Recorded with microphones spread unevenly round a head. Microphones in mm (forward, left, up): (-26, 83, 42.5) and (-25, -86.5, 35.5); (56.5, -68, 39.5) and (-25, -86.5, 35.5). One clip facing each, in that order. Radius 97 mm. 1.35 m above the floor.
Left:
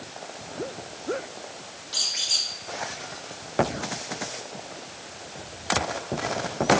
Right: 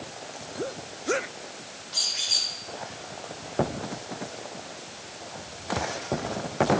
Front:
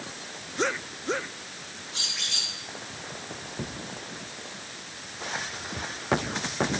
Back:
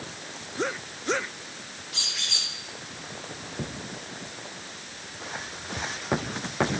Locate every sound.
1.9 s a squeak: 145° left, 5.5 m